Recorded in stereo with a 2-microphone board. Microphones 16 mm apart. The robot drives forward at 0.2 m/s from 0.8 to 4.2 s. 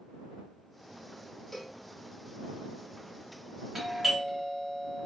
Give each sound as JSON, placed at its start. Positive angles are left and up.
{"t": 1.5, "sound": "a cowbell", "side_deg": 20, "distance_m": 0.8}
{"t": 3.8, "sound": "a doorbell", "side_deg": -25, "distance_m": 1.0}